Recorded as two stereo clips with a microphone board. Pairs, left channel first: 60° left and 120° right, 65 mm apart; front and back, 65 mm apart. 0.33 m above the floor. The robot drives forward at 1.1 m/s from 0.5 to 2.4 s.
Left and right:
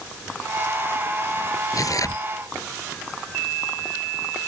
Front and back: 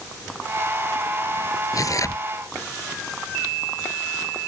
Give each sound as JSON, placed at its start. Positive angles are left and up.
{"t": 1.7, "sound": "tearing paper", "azimuth_deg": 30}